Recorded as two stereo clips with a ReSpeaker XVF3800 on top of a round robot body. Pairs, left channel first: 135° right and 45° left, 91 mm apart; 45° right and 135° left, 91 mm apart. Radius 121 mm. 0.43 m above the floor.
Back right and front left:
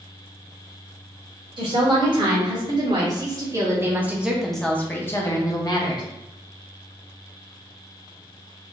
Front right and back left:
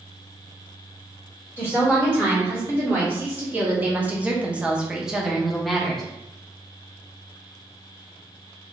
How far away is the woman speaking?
About 1.8 m.